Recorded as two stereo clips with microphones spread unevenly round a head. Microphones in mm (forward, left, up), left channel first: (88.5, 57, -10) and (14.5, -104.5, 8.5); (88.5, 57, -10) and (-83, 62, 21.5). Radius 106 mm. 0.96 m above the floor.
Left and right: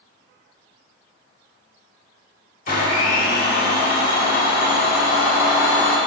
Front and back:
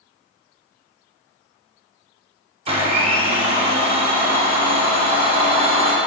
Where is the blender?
120° left, 1.4 m.